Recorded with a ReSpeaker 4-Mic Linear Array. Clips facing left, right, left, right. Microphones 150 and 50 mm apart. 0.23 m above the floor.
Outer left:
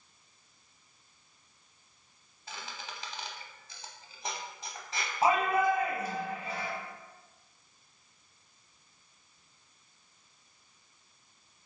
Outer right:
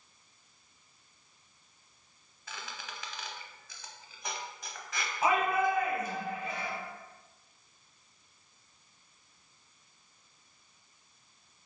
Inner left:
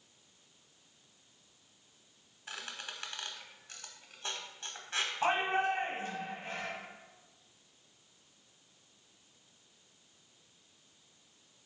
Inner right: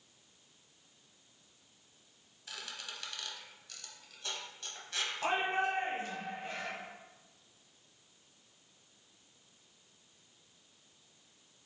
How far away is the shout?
About 1.1 m.